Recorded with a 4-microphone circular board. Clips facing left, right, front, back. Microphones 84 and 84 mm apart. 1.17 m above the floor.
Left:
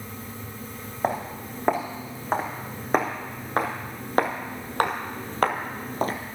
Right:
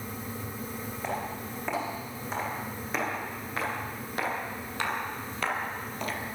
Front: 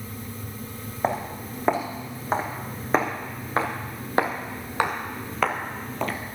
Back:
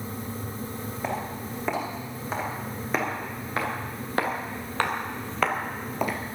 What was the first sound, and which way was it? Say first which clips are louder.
Footsteps: left 7 dB, front 6 dB; 50° left.